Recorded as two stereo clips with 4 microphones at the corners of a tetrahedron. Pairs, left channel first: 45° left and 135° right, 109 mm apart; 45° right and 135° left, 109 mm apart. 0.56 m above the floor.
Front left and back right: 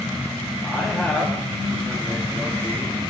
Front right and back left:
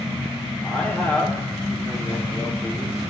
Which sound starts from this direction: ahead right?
A man speaking, at 0.6 s.